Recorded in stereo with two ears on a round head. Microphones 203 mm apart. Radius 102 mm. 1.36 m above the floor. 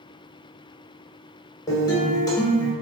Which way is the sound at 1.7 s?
20° left (ahead or behind).